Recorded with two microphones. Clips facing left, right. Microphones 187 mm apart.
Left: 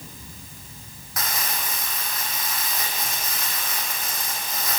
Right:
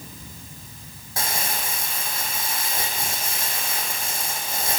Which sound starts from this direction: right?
Crumpling, at 1.2 s.